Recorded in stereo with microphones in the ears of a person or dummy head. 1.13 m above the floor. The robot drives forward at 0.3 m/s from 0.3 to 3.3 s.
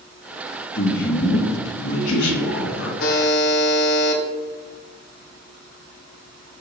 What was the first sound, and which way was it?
A man speaking, 50° left (ahead or behind).